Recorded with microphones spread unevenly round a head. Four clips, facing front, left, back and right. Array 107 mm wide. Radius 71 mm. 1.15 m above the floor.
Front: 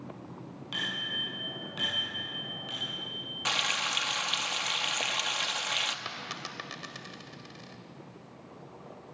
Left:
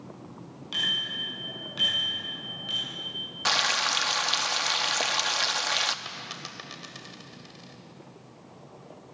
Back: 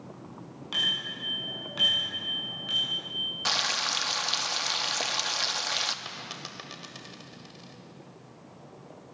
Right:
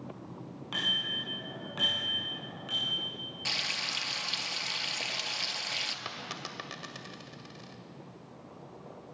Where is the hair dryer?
No hair dryer in this recording.